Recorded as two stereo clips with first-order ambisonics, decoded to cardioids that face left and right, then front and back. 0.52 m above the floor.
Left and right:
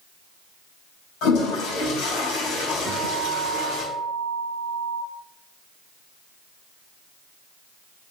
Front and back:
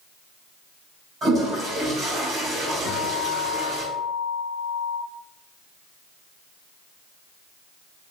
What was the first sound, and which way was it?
A toilet flushing, 120° left.